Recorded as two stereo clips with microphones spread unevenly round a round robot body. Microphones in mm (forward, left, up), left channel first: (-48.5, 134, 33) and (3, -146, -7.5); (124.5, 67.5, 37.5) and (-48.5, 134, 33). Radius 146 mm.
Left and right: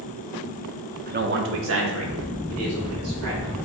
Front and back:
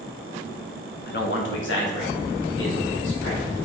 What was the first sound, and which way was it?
A man speaking, 35° right.